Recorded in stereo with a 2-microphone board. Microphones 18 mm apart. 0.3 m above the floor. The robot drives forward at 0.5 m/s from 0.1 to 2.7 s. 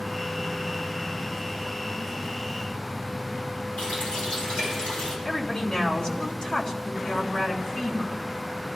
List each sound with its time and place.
3.8 s a running tap: 75° left (ahead or behind), 5.5 m
5.2 s a woman speaking: 45° left (ahead or behind), 2.5 m